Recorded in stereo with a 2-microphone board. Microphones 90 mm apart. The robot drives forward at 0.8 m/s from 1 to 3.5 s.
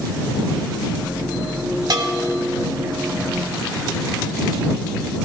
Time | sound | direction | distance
1.9 | a bell | 55° right (ahead or behind) | 1.7 m